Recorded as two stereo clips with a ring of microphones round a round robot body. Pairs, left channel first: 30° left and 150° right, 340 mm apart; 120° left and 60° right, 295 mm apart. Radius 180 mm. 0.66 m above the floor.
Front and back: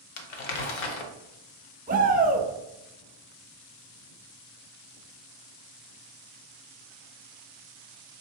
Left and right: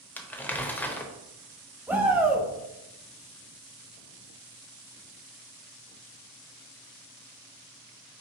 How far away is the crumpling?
About 0.7 m.